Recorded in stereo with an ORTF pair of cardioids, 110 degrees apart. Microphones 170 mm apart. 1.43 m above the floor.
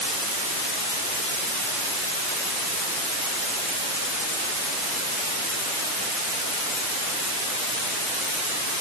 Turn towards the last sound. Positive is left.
No sound to turn to.